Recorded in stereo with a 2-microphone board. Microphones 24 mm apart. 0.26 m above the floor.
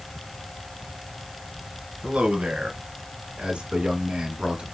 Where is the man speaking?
70° right (ahead or behind), 2.5 m; by 4.7 s 30° right (ahead or behind), 2 m.